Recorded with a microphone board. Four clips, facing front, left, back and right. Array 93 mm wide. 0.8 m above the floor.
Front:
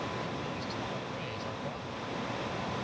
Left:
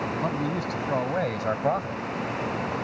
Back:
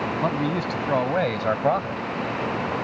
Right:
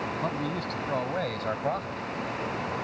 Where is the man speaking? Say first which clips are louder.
Left 3 dB, back 13 dB; 175° left; by 2.0 s 160° left.